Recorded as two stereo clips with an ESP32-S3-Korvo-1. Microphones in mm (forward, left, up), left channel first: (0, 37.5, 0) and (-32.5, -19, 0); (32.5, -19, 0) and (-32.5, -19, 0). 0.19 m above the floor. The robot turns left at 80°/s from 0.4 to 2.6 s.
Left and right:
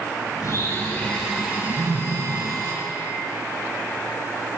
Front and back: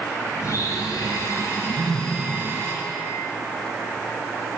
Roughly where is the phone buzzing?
Behind.